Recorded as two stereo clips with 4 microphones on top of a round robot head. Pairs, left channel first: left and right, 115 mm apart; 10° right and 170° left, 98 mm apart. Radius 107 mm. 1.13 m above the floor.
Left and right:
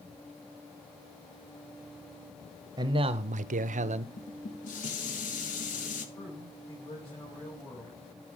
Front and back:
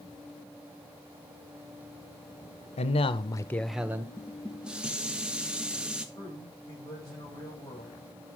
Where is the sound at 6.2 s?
40° left, 7.5 m.